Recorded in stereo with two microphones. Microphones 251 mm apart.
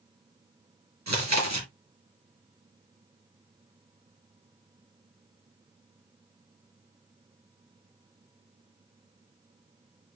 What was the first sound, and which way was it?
Chewing, 85° right.